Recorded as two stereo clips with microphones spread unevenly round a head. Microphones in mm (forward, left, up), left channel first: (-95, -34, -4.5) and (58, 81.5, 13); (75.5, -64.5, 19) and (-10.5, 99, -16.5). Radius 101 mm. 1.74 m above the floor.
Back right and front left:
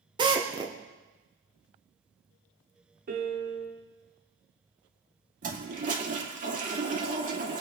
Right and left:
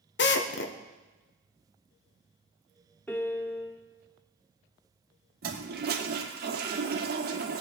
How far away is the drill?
About 1.1 m.